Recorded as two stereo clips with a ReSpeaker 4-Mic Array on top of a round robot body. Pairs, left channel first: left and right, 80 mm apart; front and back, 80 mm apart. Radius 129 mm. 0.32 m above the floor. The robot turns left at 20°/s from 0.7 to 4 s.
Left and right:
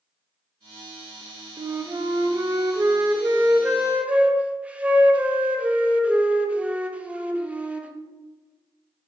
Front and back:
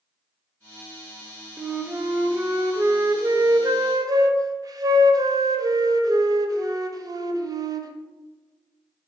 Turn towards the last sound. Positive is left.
turn(degrees=-160)